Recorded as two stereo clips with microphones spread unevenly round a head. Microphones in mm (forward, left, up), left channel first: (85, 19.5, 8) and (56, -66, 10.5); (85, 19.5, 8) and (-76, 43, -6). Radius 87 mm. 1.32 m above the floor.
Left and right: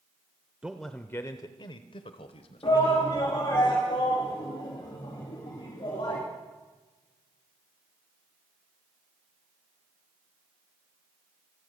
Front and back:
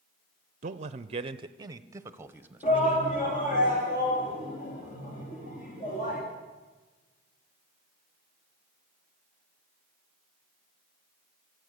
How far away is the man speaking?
About 0.5 m.